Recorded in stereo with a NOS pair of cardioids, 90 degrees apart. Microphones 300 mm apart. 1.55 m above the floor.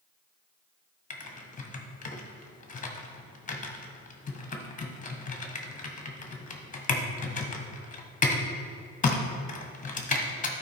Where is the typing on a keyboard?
25° left, 1.2 m.